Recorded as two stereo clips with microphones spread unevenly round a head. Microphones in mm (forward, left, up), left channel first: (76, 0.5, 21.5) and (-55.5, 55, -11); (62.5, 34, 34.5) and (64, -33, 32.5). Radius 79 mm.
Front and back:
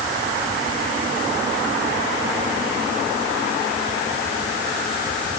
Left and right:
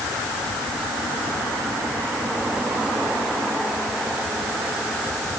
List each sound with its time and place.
Only background noise.